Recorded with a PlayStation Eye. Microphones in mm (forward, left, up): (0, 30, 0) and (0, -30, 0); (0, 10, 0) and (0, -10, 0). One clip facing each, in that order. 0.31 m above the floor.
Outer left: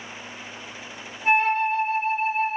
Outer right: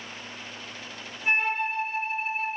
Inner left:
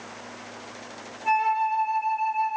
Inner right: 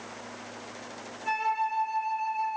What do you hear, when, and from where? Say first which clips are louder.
1.2 s a flute: outer left 6 dB, inner left 6 dB; 10° right (ahead or behind), 4.5 m